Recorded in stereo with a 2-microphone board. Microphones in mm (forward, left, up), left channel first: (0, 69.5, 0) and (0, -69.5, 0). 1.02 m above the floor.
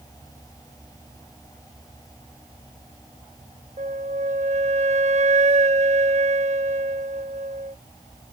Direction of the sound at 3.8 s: 55° right (ahead or behind).